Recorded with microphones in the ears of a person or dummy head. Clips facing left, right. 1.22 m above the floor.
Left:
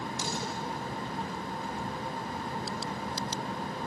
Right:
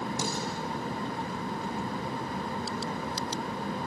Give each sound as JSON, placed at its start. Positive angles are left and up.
{"t": 0.2, "sound": "dishes clattering", "side_deg": -40, "distance_m": 7.5}